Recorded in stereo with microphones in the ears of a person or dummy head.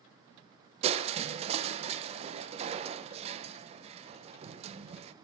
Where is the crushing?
40° right (ahead or behind), 0.9 m.